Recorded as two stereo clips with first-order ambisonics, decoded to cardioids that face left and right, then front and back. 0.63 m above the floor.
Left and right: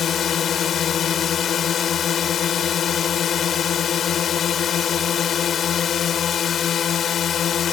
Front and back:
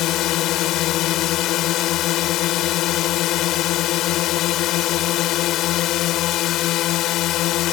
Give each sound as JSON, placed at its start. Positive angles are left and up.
{"t": 0.0, "sound": "a drone", "azimuth_deg": 35}